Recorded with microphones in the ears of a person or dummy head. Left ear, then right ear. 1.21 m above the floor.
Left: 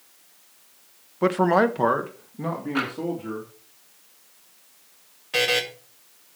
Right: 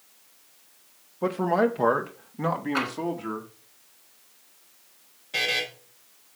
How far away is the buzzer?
About 1.9 m.